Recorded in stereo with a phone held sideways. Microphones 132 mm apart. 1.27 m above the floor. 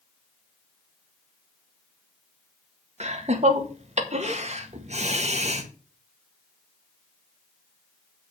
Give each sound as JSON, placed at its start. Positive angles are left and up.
{"t": 3.0, "sound": "laughter", "side_deg": -60, "distance_m": 1.8}